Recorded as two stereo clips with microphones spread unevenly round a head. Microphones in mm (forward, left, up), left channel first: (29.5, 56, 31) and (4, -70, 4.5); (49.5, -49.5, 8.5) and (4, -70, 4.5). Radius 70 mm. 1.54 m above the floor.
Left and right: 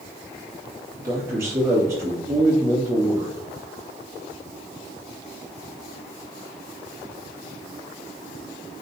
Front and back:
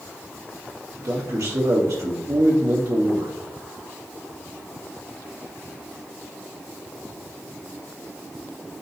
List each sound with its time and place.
1.0 s a man speaking: 175° right, 2 m